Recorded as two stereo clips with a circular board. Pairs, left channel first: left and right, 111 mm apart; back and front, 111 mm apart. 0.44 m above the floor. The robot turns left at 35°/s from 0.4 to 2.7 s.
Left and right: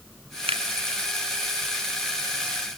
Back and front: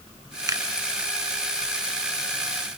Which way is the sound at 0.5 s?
60° right.